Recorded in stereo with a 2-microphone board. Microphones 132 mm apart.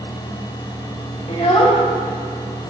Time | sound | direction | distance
1.3 | a child speaking | 50° left (ahead or behind) | 1.6 m